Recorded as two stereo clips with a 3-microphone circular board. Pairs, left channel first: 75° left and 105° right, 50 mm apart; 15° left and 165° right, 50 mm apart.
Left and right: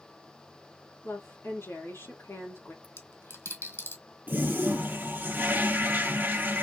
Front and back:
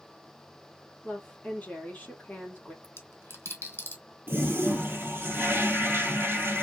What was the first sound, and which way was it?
A woman speaking, 70° left.